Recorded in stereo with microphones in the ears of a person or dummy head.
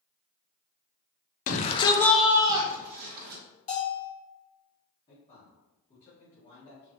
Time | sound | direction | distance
1.5 | a shout | 45° left (ahead or behind) | 0.7 m
3.7 | a bell | 45° left (ahead or behind) | 1.7 m
5.1 | a man speaking | 30° left (ahead or behind) | 1.9 m